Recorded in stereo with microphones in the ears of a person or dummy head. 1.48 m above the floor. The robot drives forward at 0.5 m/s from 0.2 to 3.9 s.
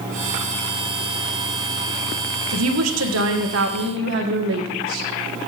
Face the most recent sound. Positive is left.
turn(degrees=-65)  # may be behind; listen again after turning